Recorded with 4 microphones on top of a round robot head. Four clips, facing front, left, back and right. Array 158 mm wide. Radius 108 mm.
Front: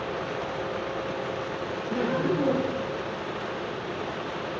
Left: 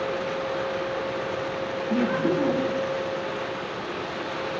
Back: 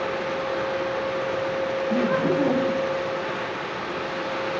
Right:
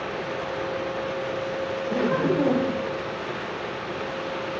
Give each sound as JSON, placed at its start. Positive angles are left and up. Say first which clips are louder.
{"t": 1.9, "sound": "laughter", "louder": "even, back 3 dB", "azimuth_deg": -85, "distance_m": 2.5}